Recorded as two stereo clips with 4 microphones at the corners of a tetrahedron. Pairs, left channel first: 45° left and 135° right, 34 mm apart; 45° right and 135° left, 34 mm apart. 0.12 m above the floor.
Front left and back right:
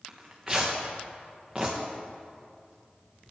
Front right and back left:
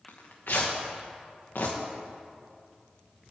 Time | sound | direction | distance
0.1 | tearing paper | 60° right | 1.8 m